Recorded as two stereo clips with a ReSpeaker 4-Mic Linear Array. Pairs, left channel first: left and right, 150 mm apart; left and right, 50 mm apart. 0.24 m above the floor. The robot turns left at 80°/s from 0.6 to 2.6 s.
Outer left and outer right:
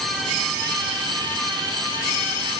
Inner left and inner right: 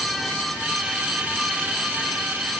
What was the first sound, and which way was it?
Only background noise.